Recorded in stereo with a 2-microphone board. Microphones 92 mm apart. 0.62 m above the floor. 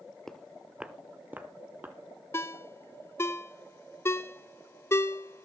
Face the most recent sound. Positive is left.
turn(degrees=30)  # may be behind; listen again after turning